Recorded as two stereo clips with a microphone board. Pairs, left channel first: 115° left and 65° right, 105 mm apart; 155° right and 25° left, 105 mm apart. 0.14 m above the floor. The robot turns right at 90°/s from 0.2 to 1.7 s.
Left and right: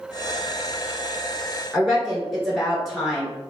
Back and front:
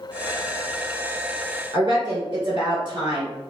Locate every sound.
1.7 s a woman speaking: 25° left, 2.0 m